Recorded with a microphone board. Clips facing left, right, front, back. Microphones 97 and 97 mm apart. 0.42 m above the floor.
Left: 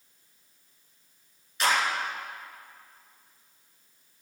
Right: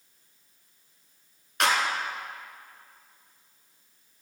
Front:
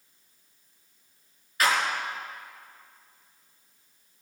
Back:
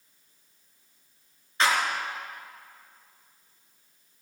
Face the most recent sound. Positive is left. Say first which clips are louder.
# right 1 dB, even
turn(degrees=-120)